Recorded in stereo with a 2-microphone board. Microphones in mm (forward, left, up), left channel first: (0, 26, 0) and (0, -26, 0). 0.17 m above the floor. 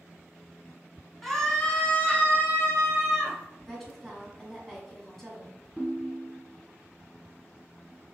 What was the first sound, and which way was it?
A scream, centre (ahead or behind).